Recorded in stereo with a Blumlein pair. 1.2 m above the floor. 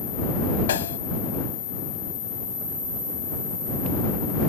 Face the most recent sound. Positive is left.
turn(degrees=60)